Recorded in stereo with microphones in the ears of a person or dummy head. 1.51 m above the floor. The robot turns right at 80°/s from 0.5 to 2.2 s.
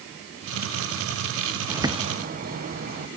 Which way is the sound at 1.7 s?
175° right.